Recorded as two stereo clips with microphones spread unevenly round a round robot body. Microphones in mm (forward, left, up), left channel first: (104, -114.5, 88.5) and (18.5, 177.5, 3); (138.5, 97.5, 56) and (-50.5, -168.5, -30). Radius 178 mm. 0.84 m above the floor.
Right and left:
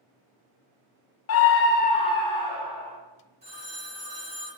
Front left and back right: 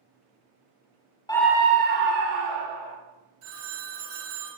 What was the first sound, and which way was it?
A scream, 40° right.